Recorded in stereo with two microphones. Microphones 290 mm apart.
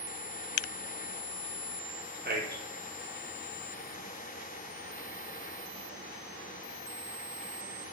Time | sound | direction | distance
2.2 | a man speaking | 35° right (ahead or behind) | 0.7 m